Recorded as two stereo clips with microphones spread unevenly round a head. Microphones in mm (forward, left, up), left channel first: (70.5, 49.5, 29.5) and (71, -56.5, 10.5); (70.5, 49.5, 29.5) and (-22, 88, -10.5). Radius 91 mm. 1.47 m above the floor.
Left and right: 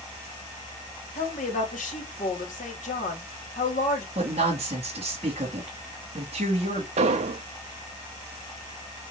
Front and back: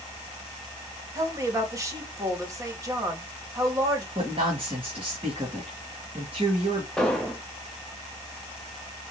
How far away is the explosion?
About 0.6 m.